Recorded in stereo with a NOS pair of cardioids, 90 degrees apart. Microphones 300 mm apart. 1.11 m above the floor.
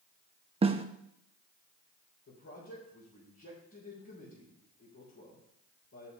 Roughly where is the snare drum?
Ahead.